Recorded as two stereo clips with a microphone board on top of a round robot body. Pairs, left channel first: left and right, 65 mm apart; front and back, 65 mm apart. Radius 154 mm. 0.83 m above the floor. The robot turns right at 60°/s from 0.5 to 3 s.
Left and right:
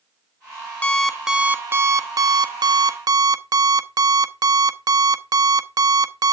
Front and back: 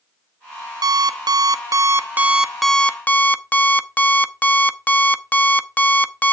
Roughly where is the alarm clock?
Behind.